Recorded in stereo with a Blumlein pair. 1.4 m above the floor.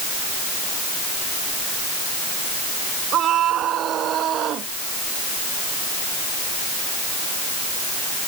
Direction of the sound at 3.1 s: 30° right.